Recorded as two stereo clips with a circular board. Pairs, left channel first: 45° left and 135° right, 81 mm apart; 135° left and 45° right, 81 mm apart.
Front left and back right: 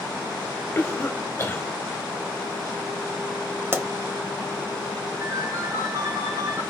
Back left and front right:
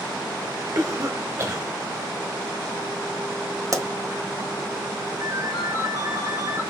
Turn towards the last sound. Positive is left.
turn(degrees=-85)